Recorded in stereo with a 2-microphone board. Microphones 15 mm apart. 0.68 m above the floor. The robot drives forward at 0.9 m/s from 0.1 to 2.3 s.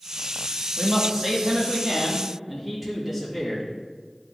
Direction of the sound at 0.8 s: 20° right (ahead or behind).